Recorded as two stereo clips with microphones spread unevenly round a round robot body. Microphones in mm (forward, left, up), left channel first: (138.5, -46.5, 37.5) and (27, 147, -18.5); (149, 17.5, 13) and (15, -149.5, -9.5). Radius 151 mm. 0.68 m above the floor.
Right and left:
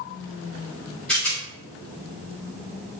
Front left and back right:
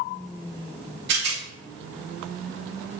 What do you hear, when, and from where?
1.1 s a rattle: 155° right, 0.9 m